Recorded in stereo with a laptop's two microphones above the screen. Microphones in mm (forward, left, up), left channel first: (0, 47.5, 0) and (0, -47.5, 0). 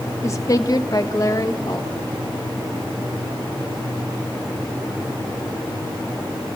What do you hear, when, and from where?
0.2 s a woman speaking: 30° left (ahead or behind), 1.0 m; by 1.9 s 40° left (ahead or behind), 1.6 m